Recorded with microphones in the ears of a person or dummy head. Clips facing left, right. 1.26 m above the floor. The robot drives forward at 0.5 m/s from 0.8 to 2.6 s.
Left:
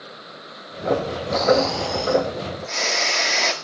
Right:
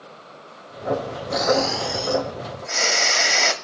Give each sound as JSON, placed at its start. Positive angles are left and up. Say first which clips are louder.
{"t": 1.3, "sound": "snoring", "louder": "left 2 dB", "side_deg": -15, "distance_m": 1.0}